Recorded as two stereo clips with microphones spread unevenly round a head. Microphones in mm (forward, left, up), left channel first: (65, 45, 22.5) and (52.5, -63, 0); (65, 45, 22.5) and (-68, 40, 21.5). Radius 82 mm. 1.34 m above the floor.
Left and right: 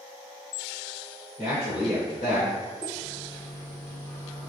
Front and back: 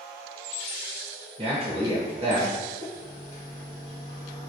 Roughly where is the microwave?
Ahead left.